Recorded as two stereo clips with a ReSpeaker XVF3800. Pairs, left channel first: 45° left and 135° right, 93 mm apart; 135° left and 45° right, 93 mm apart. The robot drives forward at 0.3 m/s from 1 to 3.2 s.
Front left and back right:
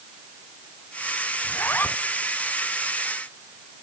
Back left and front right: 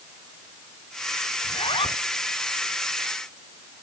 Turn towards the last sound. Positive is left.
turn(degrees=115)